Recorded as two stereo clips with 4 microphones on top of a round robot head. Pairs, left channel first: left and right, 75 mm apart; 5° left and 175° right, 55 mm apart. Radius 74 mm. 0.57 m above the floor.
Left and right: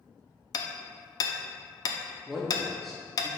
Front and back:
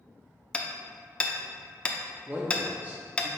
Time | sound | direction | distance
0.5 | hammering | 70° left | 0.6 m
2.3 | a man speaking | 175° left | 0.7 m